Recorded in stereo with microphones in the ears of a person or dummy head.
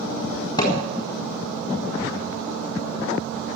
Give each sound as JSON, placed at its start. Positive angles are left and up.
{"t": 0.6, "sound": "hammering", "side_deg": 20, "distance_m": 3.5}